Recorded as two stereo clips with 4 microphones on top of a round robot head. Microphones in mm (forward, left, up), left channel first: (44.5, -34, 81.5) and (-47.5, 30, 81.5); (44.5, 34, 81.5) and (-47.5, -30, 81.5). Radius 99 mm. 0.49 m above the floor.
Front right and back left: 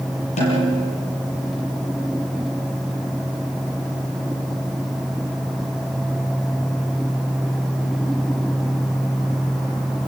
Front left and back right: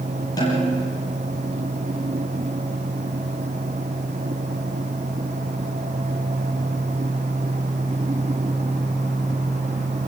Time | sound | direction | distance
0.4 | a snare drum | 25° right | 7 m